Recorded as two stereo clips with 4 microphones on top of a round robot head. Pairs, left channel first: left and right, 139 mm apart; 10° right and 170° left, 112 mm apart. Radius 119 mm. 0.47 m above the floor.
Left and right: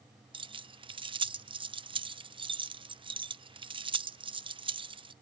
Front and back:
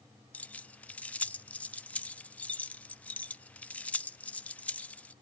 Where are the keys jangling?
80° right, 0.8 m.